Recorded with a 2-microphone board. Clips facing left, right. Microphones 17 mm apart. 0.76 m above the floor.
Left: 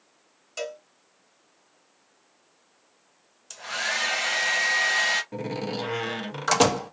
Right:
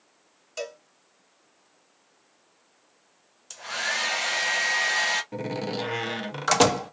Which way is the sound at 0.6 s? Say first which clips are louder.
Left 1 dB; 10° left (ahead or behind).